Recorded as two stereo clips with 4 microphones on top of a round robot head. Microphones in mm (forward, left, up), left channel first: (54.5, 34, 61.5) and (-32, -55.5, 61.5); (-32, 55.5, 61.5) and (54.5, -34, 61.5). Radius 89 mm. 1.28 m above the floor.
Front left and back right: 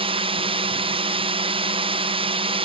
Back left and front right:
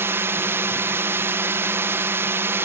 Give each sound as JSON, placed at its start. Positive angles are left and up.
{"t": 0.0, "sound": "a drone", "azimuth_deg": -115}